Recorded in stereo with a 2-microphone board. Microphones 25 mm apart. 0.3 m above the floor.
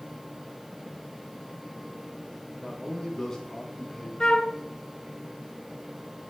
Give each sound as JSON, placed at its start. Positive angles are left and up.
{"t": 2.6, "sound": "a man speaking", "side_deg": 25, "distance_m": 3.0}
{"t": 4.2, "sound": "a flute", "side_deg": 35, "distance_m": 0.8}